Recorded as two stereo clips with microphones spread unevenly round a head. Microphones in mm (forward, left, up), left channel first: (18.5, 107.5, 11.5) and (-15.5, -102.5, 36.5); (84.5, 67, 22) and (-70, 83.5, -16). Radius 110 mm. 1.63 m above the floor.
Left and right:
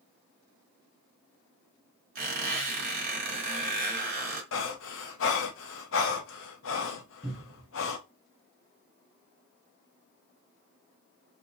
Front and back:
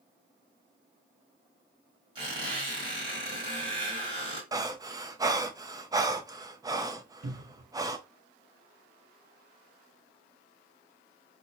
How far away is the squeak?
About 1.9 m.